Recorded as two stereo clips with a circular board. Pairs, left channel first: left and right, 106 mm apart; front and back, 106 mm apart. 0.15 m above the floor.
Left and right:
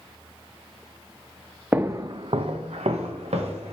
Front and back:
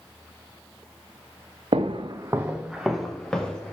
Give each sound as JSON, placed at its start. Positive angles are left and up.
{"t": 1.7, "sound": "footsteps", "azimuth_deg": -165, "distance_m": 0.5}